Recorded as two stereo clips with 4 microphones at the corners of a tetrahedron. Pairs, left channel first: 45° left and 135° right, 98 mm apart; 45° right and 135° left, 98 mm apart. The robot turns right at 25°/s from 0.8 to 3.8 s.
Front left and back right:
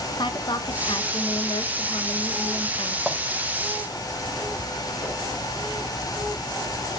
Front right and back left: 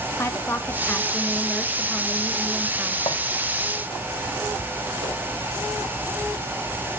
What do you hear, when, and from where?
0.2 s a woman speaking: 15° left, 0.9 m; by 3.0 s 70° left, 0.9 m
3.1 s a clink: 45° right, 2 m
5.0 s a whoosh: 150° left, 3.5 m